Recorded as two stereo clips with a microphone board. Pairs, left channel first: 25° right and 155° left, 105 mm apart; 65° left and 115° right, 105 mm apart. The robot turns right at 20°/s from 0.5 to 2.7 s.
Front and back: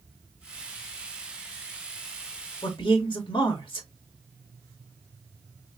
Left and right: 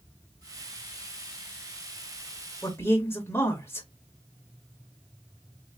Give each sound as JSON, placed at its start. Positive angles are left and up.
{"t": 2.6, "sound": "a man speaking", "azimuth_deg": 0, "distance_m": 2.0}